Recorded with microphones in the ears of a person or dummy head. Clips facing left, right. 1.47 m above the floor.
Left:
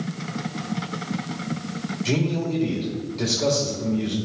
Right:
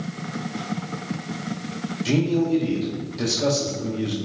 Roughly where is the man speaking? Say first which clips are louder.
Right 5 dB; centre.